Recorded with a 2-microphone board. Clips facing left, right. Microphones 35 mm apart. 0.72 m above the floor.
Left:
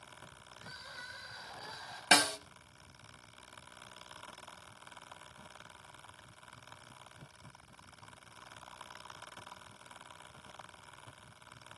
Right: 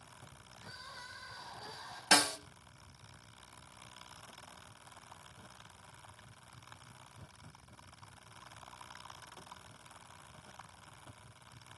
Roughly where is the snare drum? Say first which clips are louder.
Left 2 dB; left.